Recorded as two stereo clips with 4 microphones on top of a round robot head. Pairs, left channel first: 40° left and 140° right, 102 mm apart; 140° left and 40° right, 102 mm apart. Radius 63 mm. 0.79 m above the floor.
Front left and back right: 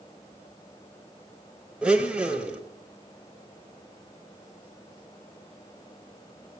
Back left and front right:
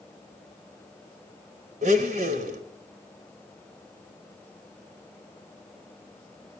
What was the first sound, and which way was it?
A blender, 60° right.